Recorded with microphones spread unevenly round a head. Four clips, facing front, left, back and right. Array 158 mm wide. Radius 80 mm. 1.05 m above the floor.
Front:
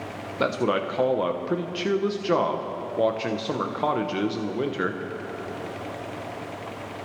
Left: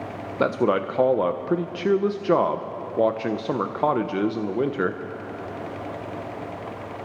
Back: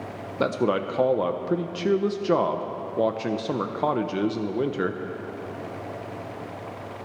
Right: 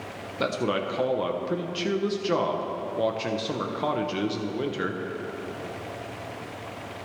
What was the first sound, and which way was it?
A man speaking, 95° left.